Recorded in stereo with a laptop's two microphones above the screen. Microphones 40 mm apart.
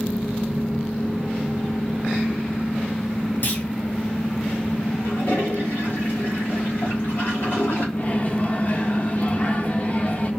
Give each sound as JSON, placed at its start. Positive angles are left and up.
{"t": 3.4, "sound": "a clunk", "side_deg": 45, "distance_m": 0.6}
{"t": 5.0, "sound": "a toilet flushing", "side_deg": 55, "distance_m": 2.0}
{"t": 8.0, "sound": "a microwave", "side_deg": 40, "distance_m": 0.7}